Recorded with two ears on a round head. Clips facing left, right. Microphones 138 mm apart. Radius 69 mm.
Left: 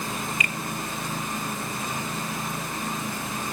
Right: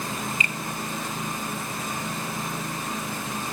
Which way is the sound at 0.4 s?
25° right (ahead or behind).